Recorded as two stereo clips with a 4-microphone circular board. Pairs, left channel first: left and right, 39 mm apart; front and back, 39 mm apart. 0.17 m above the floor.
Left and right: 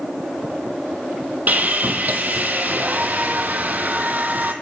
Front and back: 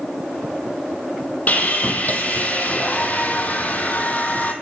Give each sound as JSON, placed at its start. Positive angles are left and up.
{"t": 1.5, "sound": "sawing", "azimuth_deg": -45, "distance_m": 1.2}